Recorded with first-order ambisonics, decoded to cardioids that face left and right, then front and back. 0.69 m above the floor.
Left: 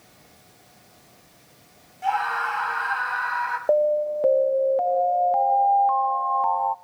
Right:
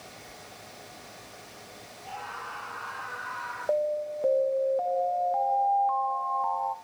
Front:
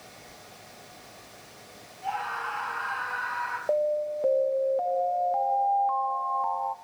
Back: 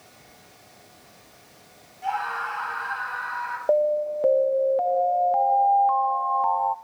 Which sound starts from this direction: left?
A scream, at 2.0 s.